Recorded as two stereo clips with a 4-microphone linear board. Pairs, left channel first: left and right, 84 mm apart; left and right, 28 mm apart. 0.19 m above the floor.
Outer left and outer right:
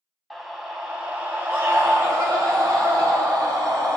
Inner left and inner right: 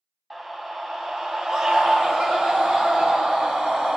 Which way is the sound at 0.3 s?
Centre (ahead or behind).